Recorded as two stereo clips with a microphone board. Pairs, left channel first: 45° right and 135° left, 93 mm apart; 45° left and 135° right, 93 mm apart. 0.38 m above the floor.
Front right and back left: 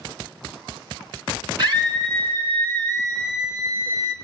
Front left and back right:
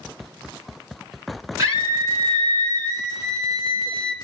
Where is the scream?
170° left, 4.5 m; by 4.2 s 175° right, 3.5 m.